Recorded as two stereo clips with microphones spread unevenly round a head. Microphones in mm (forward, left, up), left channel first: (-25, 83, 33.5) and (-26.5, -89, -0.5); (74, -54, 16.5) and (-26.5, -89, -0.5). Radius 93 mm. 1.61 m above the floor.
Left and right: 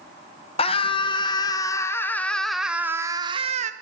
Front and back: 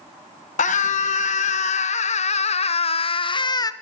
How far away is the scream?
About 1.7 m.